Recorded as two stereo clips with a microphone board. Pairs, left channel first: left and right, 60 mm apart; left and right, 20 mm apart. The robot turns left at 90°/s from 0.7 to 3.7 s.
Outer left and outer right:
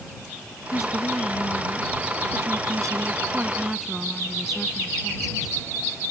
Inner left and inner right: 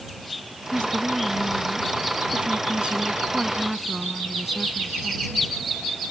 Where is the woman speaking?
90° left; by 5.5 s 175° right.